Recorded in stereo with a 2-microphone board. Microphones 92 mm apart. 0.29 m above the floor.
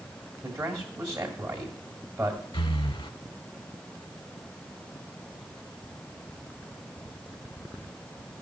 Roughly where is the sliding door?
I don't hear a sliding door.